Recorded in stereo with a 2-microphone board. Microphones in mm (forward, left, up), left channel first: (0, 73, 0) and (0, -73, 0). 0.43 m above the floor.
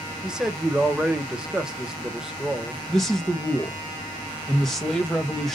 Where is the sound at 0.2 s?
5° right (ahead or behind), 1.2 m.